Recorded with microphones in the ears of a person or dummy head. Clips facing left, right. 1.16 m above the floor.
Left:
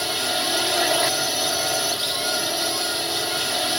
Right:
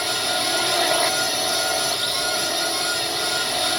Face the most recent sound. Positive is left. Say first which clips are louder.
# right 1 dB
turn(degrees=5)  # may be behind; listen again after turning